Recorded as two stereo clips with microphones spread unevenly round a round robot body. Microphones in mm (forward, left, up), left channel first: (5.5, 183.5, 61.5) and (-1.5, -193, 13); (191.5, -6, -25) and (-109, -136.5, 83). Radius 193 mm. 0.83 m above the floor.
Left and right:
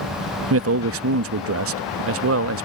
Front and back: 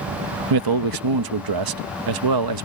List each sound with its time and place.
0.5 s a man speaking: 135° right